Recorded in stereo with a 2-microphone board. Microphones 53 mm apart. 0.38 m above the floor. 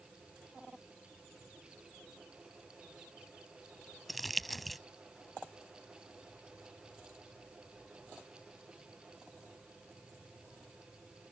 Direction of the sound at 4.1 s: Centre (ahead or behind).